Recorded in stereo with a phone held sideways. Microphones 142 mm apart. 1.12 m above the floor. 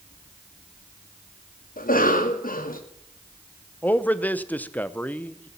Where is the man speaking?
10° left (ahead or behind), 0.7 m.